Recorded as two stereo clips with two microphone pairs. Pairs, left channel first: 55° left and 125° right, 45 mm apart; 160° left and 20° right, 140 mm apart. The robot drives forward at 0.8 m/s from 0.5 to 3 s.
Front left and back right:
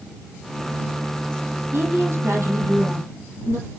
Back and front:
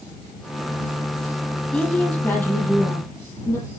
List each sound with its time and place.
1.7 s a woman speaking: 115° right, 4 m; by 3.7 s 130° right, 4.5 m